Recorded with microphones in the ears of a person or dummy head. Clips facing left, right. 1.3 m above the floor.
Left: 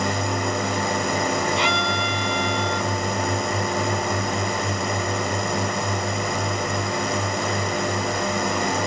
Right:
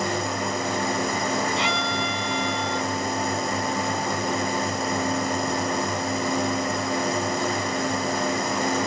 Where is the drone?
55° left (ahead or behind).